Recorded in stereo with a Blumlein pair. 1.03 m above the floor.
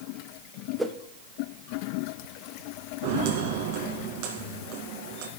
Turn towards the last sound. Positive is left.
turn(degrees=-45)